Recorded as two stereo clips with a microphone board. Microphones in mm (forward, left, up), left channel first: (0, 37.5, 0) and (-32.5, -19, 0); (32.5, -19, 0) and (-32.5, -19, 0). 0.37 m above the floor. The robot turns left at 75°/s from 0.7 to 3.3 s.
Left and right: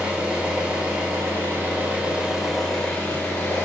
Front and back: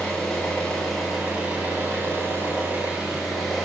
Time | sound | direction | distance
0.0 | an engine running | 70° right | 1.1 m